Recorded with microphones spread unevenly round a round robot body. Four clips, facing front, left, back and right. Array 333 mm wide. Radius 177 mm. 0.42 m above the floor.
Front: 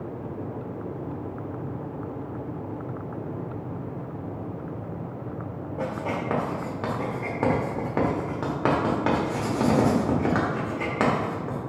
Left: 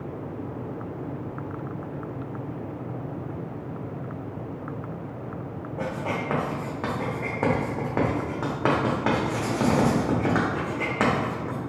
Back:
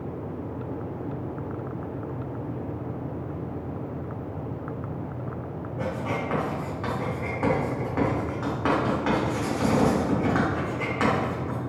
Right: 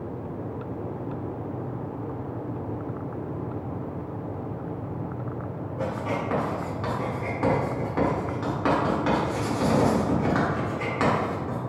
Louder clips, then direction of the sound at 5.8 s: Right 1 dB, even; 35° left.